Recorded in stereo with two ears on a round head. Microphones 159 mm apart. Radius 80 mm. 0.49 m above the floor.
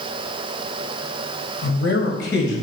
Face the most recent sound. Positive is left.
turn(degrees=70)  # may be behind; listen again after turning